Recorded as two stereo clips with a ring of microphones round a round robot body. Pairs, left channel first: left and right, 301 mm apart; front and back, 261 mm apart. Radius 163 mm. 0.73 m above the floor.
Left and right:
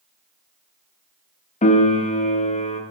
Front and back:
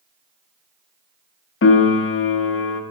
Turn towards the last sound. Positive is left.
turn(degrees=25)